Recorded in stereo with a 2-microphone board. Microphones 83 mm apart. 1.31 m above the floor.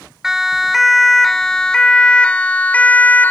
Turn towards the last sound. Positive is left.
turn(degrees=20)  # may be behind; listen again after turning